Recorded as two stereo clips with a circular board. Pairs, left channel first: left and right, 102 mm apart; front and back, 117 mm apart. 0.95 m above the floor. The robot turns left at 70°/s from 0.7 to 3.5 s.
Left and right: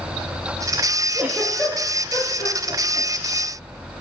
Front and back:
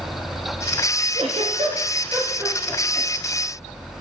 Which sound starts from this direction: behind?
A giggle, at 1.1 s.